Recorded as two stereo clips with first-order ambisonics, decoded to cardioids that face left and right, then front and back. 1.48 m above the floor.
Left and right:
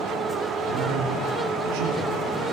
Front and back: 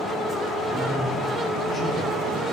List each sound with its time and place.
0.7 s a man speaking: 80° right, 0.9 m